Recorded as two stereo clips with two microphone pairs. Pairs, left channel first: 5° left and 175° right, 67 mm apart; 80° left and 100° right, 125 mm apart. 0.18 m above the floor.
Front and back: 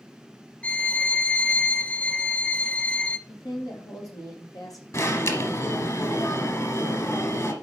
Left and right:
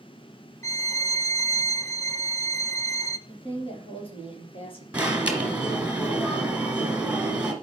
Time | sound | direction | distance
0.6 | a violin | 50° left | 0.7 m
3.3 | a woman speaking | 35° left | 4.5 m
4.9 | an alarm | 20° right | 2.5 m